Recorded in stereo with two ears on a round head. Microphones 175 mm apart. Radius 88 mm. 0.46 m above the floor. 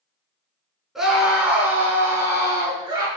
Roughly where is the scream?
Centre.